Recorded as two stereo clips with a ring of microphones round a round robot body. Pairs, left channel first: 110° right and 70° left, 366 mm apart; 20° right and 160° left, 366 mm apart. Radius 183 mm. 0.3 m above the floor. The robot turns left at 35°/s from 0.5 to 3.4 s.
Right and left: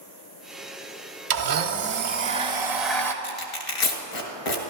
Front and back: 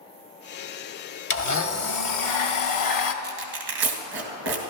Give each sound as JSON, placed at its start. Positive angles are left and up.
{"t": 1.3, "sound": "a blender", "azimuth_deg": 35, "distance_m": 1.0}
{"t": 3.2, "sound": "tearing paper", "azimuth_deg": -140, "distance_m": 2.0}